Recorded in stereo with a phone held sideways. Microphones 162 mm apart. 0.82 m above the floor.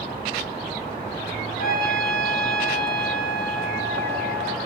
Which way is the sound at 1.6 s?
60° left (ahead or behind).